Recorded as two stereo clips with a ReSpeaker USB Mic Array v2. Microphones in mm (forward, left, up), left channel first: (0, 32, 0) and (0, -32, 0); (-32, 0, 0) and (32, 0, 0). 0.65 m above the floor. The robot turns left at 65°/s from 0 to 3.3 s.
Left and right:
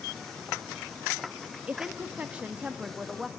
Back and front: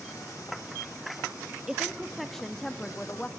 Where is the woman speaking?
60° right, 0.9 m; by 3.3 s 165° right, 0.9 m.